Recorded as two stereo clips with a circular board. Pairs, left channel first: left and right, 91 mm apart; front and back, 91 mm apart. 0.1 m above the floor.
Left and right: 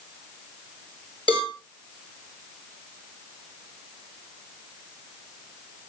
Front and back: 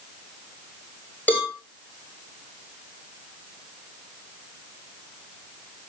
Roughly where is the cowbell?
Left.